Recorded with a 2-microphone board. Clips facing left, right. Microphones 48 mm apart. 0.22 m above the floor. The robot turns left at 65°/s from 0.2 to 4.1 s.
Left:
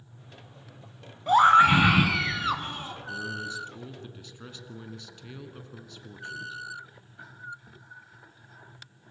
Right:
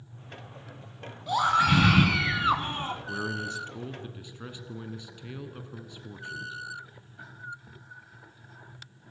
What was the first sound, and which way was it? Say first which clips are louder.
A scream: left 6 dB; 60° left.